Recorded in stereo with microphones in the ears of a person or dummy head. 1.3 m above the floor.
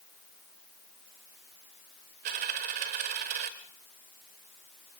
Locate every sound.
2.2 s a dropped coin: 45° right (ahead or behind), 1.3 m